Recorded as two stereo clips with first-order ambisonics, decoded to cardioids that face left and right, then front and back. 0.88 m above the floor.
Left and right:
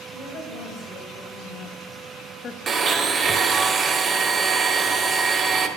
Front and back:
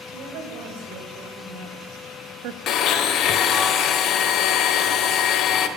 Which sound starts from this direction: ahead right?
A blender, at 2.7 s.